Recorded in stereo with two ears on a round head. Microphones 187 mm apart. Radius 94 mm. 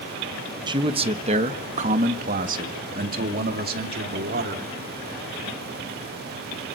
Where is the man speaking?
20° right (ahead or behind), 1.0 m; by 4.7 s 50° right (ahead or behind), 3 m.